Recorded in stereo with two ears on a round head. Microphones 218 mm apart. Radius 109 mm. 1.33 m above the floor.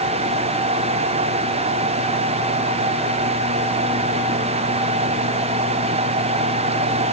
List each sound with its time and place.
Only background noise.